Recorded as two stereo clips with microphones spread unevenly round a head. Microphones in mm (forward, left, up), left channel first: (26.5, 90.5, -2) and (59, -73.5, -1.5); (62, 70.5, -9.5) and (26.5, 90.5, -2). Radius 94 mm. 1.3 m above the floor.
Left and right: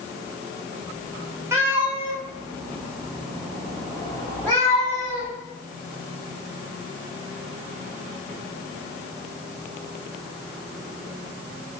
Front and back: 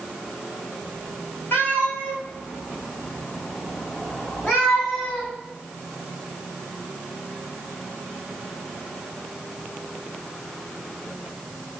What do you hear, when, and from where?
1.5 s a cat meowing: 5° right, 1.5 m; by 5.3 s 25° left, 3 m